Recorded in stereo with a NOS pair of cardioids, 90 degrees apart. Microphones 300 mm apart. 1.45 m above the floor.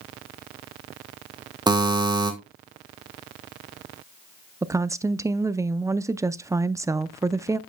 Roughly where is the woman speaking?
Ahead.